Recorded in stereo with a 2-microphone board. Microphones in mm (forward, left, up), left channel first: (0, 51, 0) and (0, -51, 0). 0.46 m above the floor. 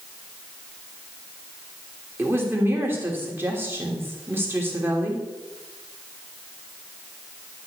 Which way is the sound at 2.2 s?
20° right (ahead or behind).